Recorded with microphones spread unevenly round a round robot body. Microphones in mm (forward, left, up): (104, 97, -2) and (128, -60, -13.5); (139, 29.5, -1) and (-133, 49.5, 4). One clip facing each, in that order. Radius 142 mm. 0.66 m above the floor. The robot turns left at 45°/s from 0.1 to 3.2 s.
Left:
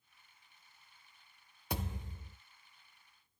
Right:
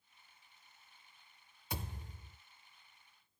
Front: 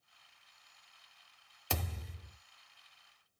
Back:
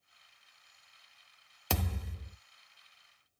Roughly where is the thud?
Behind left.